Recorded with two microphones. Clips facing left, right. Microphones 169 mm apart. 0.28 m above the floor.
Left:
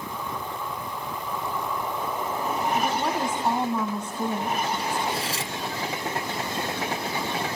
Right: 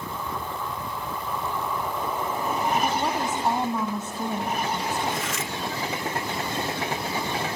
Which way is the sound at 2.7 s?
5° right (ahead or behind).